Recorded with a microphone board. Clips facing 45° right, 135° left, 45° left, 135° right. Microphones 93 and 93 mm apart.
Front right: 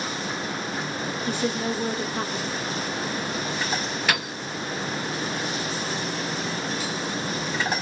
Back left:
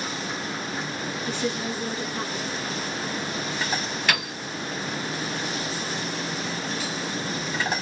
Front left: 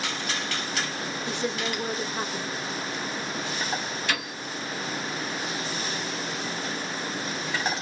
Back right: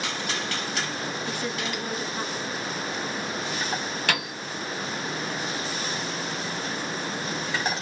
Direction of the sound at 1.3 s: 15° right.